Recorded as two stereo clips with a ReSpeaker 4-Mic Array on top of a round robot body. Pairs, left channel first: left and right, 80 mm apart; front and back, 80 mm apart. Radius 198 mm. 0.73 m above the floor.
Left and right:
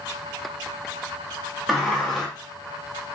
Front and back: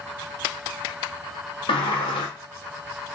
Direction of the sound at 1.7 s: Straight ahead.